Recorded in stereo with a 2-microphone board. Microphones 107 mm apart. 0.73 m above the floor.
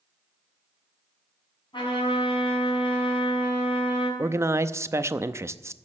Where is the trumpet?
50° left (ahead or behind), 6 m.